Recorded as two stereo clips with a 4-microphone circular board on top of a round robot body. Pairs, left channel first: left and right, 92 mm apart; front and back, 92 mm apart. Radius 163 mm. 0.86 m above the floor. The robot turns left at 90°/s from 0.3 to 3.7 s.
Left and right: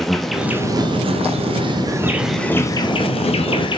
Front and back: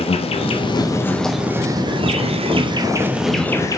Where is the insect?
Straight ahead, 0.9 m; by 3.8 s 55° left, 0.9 m.